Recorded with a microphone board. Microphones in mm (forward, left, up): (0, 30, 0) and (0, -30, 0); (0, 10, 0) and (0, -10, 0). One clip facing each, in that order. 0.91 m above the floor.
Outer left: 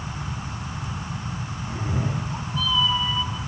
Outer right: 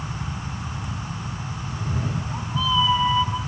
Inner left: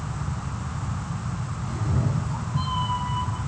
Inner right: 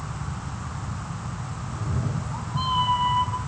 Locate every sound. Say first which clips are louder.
1.7 s a cat meowing: outer left 1 dB, inner left 3 dB; 40° left (ahead or behind), 1.3 m; by 3.4 s 40° right (ahead or behind), 2.5 m